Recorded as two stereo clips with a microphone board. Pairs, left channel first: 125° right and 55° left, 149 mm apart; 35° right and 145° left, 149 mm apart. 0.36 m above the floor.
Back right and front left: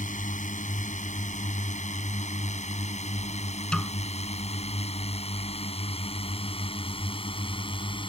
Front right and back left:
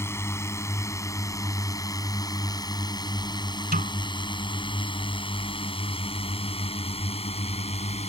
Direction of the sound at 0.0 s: 105° right.